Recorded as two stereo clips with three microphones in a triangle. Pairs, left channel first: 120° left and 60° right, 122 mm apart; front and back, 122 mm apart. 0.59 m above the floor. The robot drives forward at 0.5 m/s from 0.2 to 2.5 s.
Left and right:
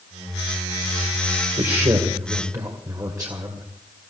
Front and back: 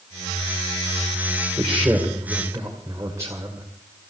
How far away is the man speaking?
About 2.5 m.